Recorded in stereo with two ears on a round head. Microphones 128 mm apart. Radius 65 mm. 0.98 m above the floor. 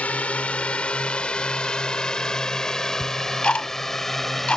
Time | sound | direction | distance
0.0 | a drone | 10° left (ahead or behind) | ?
3.0 | ticking | 5° left (ahead or behind) | ?